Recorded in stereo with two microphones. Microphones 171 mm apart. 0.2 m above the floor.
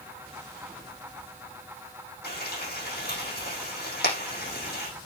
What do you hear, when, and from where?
2.2 s frying: 70° left (ahead or behind), 9.5 m